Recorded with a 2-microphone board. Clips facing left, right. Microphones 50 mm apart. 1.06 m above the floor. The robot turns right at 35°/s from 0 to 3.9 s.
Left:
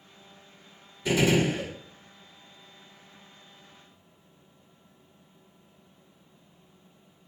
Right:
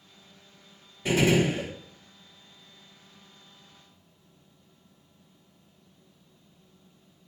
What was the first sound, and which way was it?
A gunshot, 50° right (ahead or behind).